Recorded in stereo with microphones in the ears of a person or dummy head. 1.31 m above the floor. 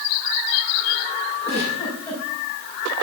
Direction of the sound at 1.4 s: 10° left (ahead or behind).